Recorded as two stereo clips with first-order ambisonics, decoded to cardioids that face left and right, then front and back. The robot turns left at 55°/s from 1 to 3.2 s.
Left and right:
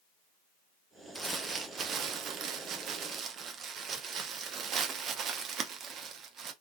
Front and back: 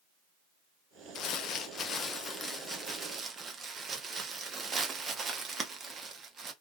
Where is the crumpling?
15° right, 0.8 m; by 6.5 s 125° right, 0.8 m.